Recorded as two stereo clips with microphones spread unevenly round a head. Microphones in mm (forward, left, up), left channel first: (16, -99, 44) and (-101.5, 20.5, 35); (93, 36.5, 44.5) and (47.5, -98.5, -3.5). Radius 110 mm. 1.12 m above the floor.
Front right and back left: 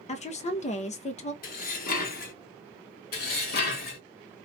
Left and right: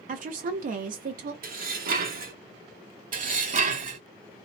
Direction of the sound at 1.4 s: 80° right.